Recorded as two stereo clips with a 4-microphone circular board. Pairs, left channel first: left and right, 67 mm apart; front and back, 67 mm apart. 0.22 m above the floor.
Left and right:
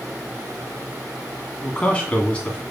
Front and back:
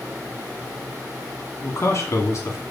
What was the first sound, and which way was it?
A man speaking, 25° left.